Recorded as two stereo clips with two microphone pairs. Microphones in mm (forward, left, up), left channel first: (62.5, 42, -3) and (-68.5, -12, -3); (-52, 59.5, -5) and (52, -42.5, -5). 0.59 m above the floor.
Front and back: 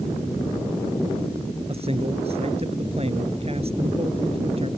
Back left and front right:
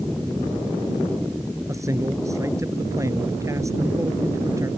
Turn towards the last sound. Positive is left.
turn(degrees=-115)